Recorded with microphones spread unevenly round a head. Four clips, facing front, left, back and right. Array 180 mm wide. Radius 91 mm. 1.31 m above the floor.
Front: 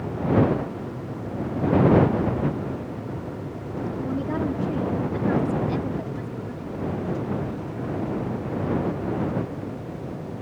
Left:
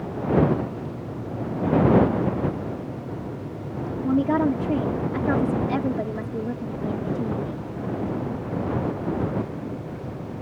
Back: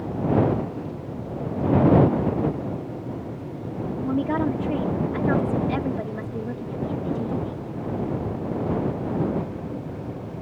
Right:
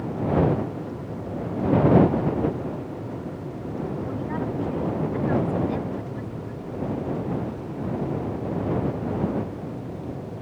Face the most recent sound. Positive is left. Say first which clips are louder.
# left 8 dB, back 5 dB
turn(degrees=110)